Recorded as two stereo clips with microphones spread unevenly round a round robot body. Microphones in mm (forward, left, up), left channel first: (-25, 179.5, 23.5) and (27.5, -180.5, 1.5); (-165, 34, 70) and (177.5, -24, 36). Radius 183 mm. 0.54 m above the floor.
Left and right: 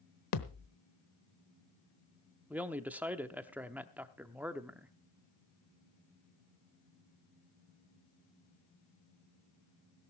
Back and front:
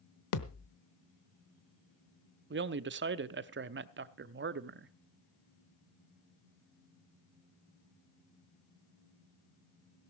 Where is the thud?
135° left, 1.1 m.